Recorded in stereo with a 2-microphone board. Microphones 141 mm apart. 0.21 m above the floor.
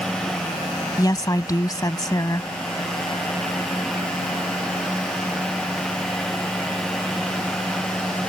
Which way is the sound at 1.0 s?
25° left (ahead or behind).